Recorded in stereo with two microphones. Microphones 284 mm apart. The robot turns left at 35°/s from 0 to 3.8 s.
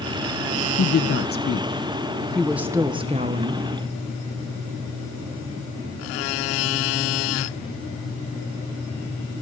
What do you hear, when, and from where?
0.8 s a woman speaking: 55° left, 0.6 m; by 3.6 s 45° right, 0.6 m